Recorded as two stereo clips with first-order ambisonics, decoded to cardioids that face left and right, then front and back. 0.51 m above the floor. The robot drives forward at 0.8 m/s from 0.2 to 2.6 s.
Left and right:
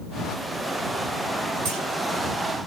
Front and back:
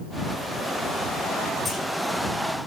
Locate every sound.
1.6 s a clunk: 95° right, 7.5 m